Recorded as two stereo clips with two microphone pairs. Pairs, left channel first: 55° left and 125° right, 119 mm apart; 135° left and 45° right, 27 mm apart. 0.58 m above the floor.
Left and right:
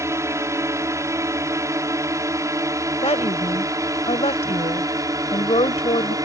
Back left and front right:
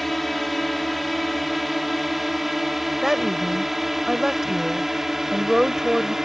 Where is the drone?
140° right; by 6.3 s 110° right.